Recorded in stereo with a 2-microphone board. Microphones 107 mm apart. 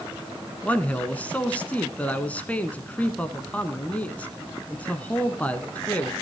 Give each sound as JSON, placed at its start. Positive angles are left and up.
{"t": 0.6, "sound": "a man speaking", "side_deg": 15, "distance_m": 1.1}